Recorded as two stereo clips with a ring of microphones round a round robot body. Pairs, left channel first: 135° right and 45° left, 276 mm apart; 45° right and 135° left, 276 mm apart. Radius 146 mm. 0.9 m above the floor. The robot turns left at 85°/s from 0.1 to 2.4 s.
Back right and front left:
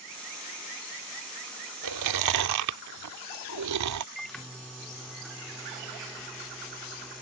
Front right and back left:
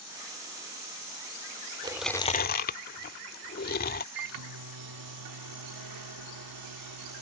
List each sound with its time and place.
1.8 s chewing: 65° left; by 4.0 s 15° left
4.2 s a microwave: 135° left